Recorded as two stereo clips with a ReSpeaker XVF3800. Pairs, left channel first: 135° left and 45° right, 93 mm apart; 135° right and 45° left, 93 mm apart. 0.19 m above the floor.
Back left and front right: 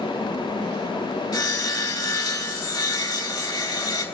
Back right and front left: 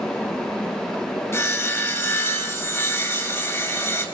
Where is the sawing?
170° left, 3 m.